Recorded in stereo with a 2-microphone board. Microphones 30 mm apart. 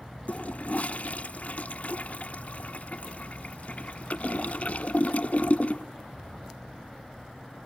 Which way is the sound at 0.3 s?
60° left (ahead or behind).